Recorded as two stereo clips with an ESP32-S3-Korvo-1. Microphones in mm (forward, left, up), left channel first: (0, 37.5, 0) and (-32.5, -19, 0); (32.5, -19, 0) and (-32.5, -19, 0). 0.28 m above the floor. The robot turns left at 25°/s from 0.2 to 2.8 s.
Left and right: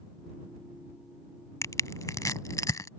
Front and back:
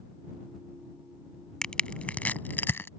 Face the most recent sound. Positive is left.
turn(degrees=50)